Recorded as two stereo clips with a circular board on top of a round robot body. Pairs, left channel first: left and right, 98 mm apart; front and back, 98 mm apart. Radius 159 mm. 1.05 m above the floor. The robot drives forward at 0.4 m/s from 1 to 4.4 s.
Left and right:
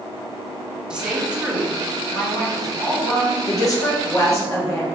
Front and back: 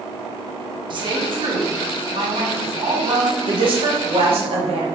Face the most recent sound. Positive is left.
turn(degrees=155)